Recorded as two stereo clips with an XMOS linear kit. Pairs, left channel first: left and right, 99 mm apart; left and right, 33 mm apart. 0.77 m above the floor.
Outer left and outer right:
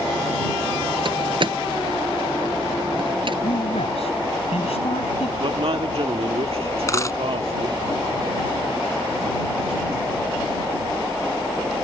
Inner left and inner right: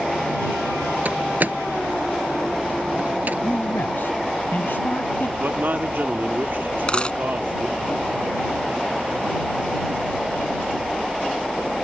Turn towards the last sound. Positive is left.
turn(degrees=30)  # may be behind; listen again after turning